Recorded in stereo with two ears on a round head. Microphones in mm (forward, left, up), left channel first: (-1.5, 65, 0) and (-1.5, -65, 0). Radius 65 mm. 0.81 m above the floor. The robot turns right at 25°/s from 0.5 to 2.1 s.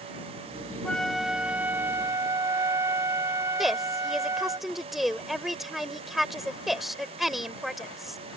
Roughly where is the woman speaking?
Centre.